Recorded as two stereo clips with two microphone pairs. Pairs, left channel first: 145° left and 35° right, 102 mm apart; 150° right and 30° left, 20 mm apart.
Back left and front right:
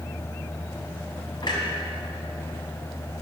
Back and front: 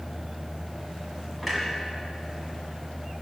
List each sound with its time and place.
1.4 s a clunk: 120° left, 2.5 m